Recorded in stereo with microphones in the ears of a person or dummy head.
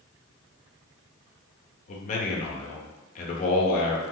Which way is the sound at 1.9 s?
45° left (ahead or behind).